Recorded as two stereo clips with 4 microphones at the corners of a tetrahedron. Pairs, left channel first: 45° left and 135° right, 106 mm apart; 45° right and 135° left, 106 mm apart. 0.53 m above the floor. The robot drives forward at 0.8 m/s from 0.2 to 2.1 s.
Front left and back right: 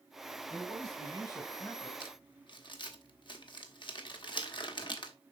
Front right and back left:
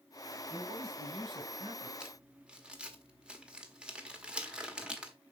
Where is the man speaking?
85° left, 3 m; by 1.9 s 110° left, 3 m.